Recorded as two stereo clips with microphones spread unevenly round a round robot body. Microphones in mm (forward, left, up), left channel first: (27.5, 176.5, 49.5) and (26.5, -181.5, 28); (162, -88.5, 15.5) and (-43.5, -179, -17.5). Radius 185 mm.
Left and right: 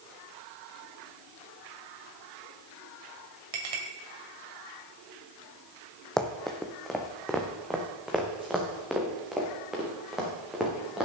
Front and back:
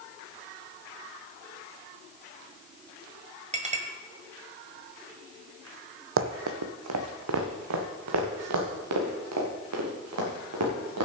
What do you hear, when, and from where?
3.5 s a clink: 100° right, 2 m
6.2 s running footsteps: 175° left, 0.7 m; by 11.1 s straight behind, 3.5 m